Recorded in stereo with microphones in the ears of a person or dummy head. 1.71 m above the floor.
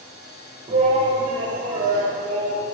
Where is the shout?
35° right (ahead or behind), 2.5 m; by 2.6 s 45° right (ahead or behind), 3.5 m.